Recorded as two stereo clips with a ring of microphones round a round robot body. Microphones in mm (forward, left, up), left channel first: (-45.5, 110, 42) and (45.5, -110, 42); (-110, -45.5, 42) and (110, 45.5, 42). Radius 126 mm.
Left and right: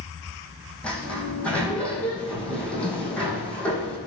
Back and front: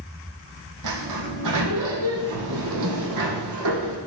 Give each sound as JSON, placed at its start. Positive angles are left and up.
{"t": 0.8, "sound": "a sliding door", "azimuth_deg": 25, "distance_m": 2.5}